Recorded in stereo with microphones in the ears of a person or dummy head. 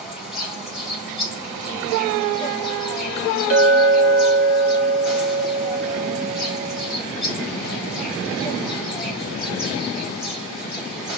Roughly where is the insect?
Centre.